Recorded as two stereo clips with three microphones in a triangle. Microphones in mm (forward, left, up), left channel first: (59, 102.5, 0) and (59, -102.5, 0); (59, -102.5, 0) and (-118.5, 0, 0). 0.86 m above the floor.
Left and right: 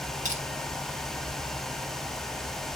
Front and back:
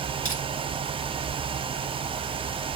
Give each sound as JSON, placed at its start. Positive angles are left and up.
{"t": 0.2, "sound": "crushing", "azimuth_deg": -35, "distance_m": 2.0}